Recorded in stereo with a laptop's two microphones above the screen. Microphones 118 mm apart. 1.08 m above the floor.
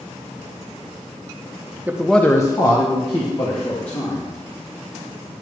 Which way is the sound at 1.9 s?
15° right (ahead or behind).